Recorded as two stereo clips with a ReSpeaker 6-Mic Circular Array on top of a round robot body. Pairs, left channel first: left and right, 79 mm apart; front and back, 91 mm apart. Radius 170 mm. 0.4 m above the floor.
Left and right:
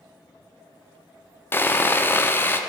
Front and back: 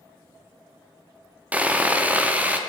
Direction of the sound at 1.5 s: 120° left.